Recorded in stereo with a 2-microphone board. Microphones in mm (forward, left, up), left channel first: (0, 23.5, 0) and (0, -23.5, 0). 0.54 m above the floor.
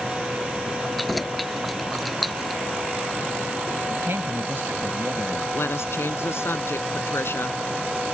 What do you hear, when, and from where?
1.0 s keys jangling: centre (ahead or behind)
3.9 s a man speaking: 55° right (ahead or behind)
5.5 s a woman speaking: 60° left (ahead or behind)